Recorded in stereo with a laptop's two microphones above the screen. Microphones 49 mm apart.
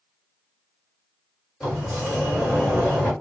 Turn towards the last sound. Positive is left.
turn(degrees=-5)  # may be behind; listen again after turning